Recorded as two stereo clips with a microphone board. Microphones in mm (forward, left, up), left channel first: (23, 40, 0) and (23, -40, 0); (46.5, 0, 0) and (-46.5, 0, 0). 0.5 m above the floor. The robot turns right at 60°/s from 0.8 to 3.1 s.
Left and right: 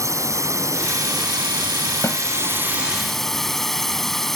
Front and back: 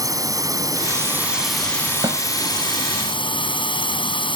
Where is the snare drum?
145° left; by 2.2 s 155° left.